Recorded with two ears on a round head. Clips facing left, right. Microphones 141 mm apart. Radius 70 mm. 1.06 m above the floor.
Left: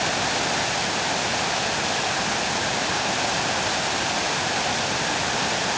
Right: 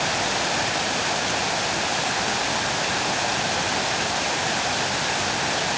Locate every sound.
Only background noise.